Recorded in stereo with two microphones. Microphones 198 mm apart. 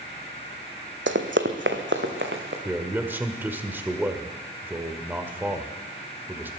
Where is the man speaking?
10° right (ahead or behind), 1.6 m.